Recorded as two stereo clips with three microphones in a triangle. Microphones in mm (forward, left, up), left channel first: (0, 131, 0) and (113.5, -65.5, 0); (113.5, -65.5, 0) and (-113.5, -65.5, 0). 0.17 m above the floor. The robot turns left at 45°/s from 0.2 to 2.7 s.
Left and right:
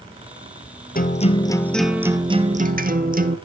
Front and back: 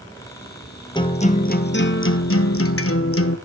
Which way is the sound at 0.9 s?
70° left.